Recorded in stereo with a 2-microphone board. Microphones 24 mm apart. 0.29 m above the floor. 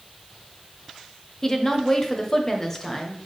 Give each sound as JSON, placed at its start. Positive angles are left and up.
{"t": 1.4, "sound": "a woman speaking", "side_deg": 20, "distance_m": 1.0}